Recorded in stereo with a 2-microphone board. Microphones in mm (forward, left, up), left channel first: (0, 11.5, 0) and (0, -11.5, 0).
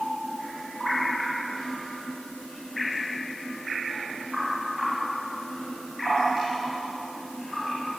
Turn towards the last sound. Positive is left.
No sound to turn to.